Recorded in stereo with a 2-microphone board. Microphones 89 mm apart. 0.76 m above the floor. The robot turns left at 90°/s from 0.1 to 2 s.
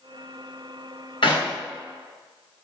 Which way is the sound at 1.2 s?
75° left (ahead or behind).